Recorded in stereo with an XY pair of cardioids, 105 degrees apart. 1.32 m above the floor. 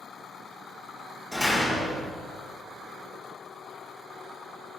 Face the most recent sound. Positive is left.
turn(degrees=0)